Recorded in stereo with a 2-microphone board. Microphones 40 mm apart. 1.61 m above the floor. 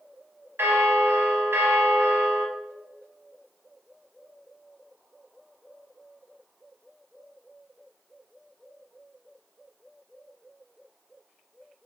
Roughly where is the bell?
Right.